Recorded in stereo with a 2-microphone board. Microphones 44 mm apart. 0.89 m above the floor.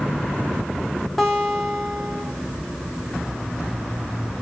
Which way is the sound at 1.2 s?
Centre (ahead or behind).